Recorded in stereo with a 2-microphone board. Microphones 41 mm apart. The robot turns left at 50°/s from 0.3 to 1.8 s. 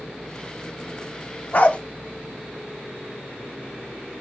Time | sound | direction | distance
1.5 | a dog barking | 45° left (ahead or behind) | 0.5 m